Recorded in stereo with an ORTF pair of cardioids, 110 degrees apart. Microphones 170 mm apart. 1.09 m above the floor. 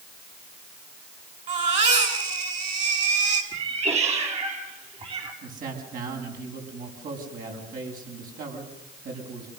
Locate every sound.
1.5 s a baby crying: 45° right, 6.5 m
3.5 s a cat meowing: 40° right, 4.5 m
5.4 s a man speaking: 55° right, 7.5 m